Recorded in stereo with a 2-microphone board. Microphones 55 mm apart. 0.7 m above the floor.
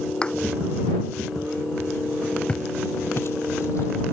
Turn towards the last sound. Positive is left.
turn(degrees=65)  # may be behind; listen again after turning